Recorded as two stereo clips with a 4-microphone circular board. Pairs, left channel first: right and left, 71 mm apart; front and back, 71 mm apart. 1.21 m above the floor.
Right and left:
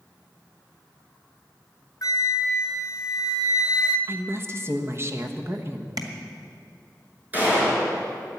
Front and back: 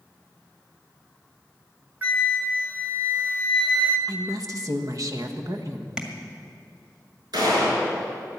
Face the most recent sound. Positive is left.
turn(degrees=155)